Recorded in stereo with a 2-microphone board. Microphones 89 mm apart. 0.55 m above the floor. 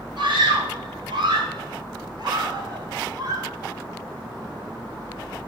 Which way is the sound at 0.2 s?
70° right (ahead or behind).